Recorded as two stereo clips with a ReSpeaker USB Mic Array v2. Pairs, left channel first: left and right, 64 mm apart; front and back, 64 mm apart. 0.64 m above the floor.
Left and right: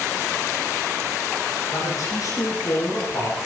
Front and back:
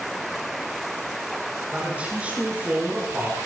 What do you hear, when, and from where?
1.7 s a man speaking: 110° left, 8.5 m; by 3.4 s 115° left, 10 m